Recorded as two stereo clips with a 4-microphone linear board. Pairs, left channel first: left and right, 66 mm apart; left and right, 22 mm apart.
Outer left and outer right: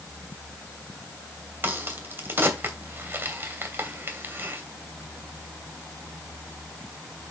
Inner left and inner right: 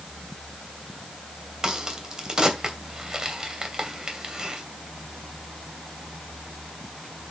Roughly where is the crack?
Right.